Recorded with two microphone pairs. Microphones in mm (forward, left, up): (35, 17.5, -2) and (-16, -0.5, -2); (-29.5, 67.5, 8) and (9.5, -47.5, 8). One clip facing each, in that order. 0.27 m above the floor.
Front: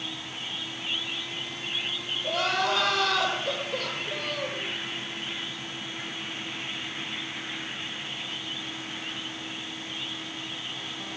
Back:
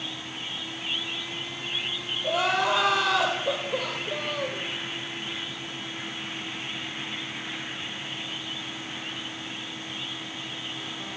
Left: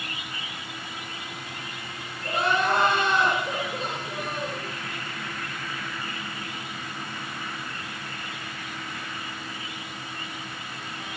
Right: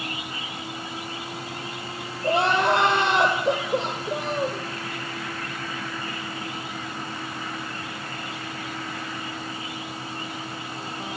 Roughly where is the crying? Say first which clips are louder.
Back 2 dB, right 4 dB; right.